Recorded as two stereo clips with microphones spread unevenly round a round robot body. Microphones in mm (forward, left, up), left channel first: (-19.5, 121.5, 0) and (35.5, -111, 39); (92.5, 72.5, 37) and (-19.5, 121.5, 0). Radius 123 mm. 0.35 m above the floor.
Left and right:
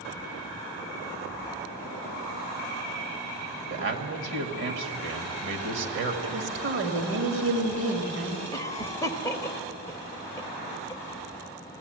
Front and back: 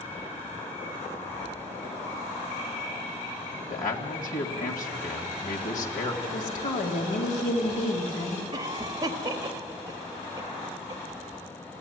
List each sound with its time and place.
3.7 s a man speaking: 40° right, 2 m
6.2 s a woman speaking: 40° right, 2 m
8.5 s a cough: 165° left, 1.3 m